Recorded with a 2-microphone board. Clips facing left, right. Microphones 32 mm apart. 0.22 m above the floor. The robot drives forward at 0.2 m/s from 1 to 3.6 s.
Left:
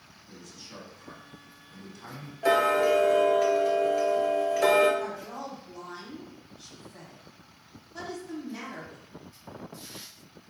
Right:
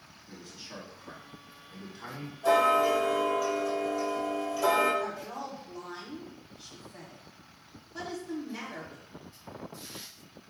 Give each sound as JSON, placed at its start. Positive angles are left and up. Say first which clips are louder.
{"t": 0.3, "sound": "a man speaking", "louder": "right 1 dB", "side_deg": -25, "distance_m": 1.4}
{"t": 2.4, "sound": "ticking", "louder": "left 1 dB", "side_deg": 65, "distance_m": 1.2}
{"t": 5.0, "sound": "a woman speaking", "louder": "even", "side_deg": 0, "distance_m": 1.2}